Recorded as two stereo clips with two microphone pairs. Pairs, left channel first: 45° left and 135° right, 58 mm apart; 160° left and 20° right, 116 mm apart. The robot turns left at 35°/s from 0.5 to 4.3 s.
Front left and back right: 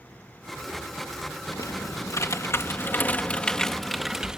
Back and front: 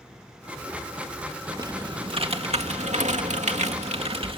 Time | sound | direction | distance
1.5 | typing on a keyboard | 40° left | ?